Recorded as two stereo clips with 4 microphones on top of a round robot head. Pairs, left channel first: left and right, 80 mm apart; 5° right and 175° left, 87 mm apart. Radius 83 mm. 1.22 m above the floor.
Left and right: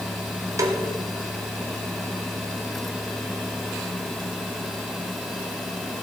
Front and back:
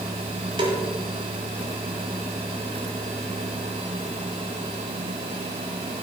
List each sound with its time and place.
0.6 s a snare drum: 135° right, 1.8 m